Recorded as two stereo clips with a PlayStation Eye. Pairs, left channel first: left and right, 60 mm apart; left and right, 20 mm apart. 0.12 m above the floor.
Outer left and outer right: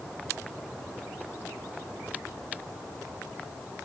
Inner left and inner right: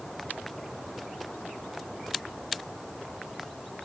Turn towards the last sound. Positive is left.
No sound to turn to.